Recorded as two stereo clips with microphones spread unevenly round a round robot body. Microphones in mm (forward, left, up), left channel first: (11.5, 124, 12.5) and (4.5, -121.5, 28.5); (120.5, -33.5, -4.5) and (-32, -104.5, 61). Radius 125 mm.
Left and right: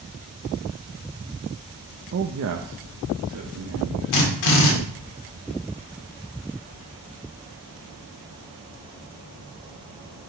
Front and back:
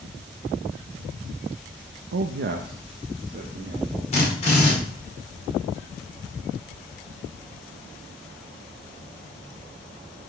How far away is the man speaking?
About 0.5 m.